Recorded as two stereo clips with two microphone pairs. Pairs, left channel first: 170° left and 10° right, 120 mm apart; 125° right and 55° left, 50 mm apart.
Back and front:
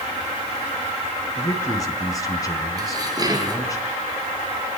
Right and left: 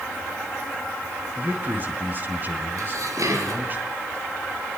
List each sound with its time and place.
1.4 s a man speaking: 105° left, 4 m
2.8 s dishes clattering: 50° left, 4.5 m